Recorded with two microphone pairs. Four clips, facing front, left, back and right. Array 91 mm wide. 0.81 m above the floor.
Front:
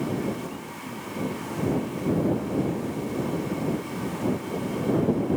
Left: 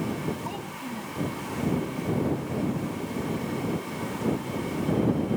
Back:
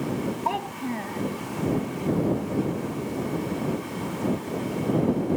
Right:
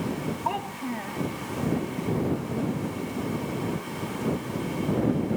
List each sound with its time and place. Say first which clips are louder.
0.5 s a child speaking: right 5 dB, back 8 dB; 150° right